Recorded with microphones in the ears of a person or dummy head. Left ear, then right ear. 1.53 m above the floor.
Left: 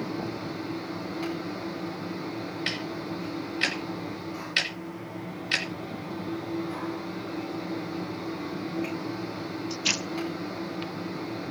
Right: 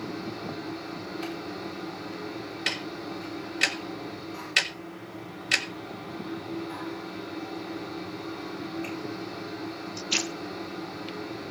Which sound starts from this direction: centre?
A fan, at 0.0 s.